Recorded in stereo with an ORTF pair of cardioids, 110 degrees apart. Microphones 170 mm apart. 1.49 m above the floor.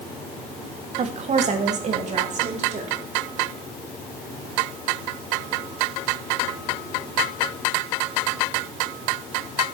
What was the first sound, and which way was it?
A woman speaking, 40° right.